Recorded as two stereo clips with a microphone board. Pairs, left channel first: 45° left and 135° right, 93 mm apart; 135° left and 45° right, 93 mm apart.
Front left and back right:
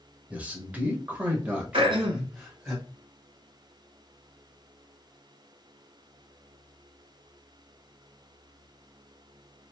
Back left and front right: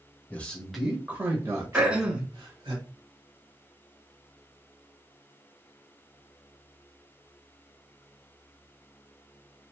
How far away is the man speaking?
About 0.9 m.